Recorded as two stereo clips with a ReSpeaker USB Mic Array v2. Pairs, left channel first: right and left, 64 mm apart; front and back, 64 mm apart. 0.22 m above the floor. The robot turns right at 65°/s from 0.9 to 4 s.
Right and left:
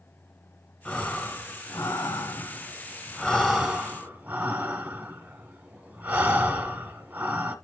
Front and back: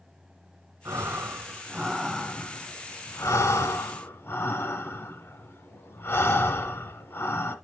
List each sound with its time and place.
0.8 s breathing: 170° right, 1.2 m; by 7.5 s 35° left, 1.2 m